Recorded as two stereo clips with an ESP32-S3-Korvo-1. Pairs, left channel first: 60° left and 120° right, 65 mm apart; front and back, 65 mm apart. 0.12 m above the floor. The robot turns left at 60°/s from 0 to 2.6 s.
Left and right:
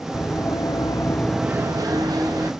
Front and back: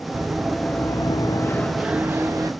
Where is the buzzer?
No buzzer in this recording.